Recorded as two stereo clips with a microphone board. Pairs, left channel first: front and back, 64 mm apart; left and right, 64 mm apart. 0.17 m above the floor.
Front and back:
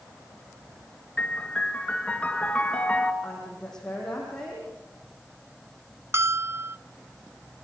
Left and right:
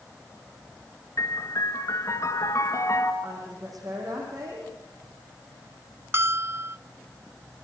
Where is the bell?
135° right, 0.5 m.